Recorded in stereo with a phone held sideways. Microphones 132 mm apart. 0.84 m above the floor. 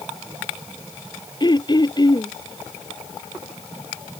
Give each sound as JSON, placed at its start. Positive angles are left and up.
{"t": 1.4, "sound": "throat clearing", "side_deg": 35}